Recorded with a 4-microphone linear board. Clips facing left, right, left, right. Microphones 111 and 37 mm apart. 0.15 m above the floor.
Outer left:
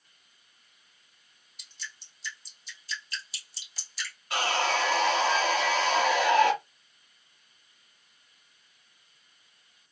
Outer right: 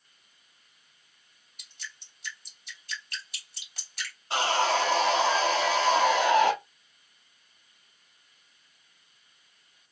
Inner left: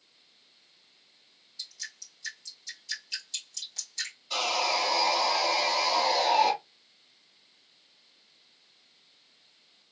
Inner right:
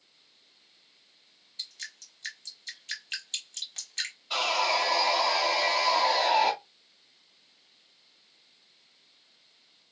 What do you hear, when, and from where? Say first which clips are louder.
1.6 s dripping: even, inner right 1 dB; 55° right (ahead or behind), 1.2 m
4.3 s sawing: outer right 2 dB, inner right 2 dB; 30° right (ahead or behind), 1.5 m